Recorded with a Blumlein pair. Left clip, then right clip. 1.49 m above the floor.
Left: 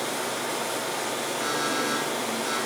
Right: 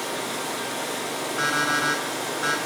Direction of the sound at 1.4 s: 60° right.